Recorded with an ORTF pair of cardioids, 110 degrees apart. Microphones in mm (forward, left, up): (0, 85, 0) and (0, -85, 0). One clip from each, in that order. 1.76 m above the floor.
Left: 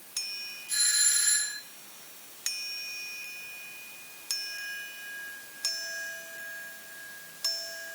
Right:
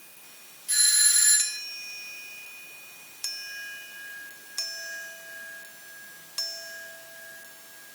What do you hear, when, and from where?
0.7 s a doorbell: 70° right, 3 m